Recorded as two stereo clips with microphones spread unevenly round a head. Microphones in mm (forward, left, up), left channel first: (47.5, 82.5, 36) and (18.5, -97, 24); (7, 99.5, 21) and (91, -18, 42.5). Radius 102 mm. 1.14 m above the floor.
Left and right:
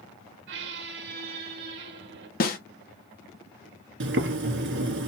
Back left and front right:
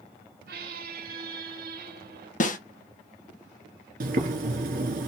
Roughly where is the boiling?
Right.